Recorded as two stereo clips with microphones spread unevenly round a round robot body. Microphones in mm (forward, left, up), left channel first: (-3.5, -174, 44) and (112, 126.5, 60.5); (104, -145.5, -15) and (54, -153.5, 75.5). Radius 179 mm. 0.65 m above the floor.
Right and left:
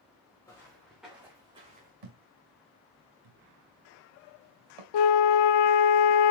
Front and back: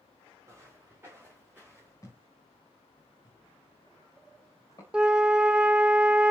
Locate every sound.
0.5 s footsteps: 165° left, 3.5 m; by 1.9 s 135° left, 2.5 m
2.0 s a thud: 75° left, 3 m
4.9 s a flute: 100° right, 1.0 m